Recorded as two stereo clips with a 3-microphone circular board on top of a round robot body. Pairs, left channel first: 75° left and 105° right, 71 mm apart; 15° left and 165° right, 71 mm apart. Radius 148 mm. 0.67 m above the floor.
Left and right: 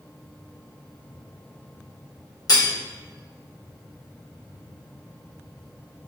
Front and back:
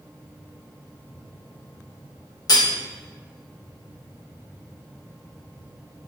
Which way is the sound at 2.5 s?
45° left.